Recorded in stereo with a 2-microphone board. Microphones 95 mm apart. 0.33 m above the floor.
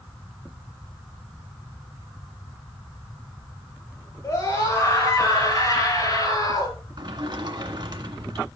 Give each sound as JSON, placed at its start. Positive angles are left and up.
{"t": 4.2, "sound": "a scream", "side_deg": 25, "distance_m": 7.5}
{"t": 7.0, "sound": "a sliding door", "side_deg": -55, "distance_m": 1.7}